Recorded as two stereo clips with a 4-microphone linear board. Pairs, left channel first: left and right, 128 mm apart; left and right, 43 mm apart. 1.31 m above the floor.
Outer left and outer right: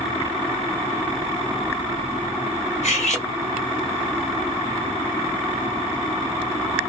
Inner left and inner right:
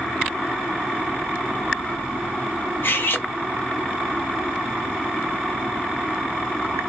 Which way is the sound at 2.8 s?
60° left (ahead or behind).